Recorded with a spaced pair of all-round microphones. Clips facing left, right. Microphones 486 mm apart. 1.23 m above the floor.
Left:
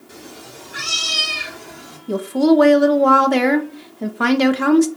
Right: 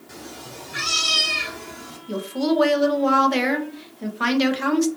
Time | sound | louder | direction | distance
0.1 | a cat meowing | even | 15° right (ahead or behind) | 1.2 m
2.1 | a woman speaking | left 8 dB | 70° left (ahead or behind) | 0.7 m